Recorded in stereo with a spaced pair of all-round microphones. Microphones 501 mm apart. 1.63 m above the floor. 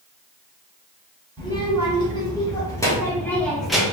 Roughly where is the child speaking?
Centre.